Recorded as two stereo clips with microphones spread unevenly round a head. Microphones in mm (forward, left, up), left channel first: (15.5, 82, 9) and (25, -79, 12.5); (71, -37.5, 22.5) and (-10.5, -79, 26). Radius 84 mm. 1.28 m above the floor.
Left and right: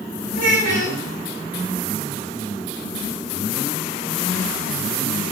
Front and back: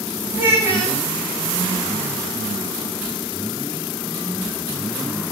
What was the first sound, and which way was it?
A child speaking, 135° right.